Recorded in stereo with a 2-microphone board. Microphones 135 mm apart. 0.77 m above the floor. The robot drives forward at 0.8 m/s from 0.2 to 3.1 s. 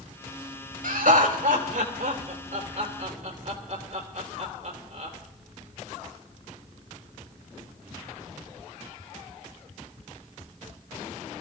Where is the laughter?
70° right (ahead or behind), 3 m; by 5.2 s 55° right (ahead or behind), 3.5 m.